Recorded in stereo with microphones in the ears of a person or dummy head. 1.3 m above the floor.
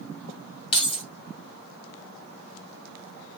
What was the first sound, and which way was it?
Keys jangling, 35° left (ahead or behind).